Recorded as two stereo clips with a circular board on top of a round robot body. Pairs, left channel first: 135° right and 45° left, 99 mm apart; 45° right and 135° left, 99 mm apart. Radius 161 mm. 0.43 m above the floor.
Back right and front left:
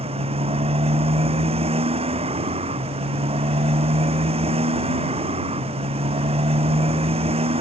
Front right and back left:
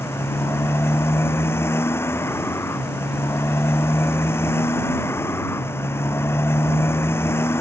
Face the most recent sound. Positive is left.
turn(degrees=25)